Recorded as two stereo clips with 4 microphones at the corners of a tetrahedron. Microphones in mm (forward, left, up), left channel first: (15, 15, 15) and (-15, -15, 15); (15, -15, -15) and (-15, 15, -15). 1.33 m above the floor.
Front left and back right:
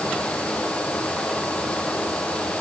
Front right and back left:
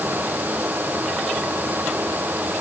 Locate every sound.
Only background noise.